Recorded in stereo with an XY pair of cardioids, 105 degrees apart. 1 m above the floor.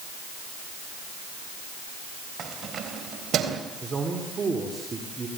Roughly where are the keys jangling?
Ahead right.